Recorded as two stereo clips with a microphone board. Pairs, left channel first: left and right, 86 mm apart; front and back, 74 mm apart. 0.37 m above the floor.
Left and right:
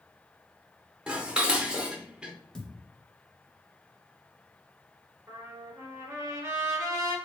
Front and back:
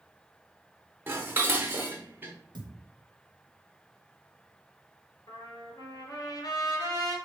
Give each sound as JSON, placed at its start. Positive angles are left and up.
{"t": 1.1, "sound": "dishes clattering", "azimuth_deg": -160, "distance_m": 0.7}
{"t": 2.5, "sound": "a thud", "azimuth_deg": 175, "distance_m": 0.6}
{"t": 5.3, "sound": "a trumpet", "azimuth_deg": -30, "distance_m": 1.3}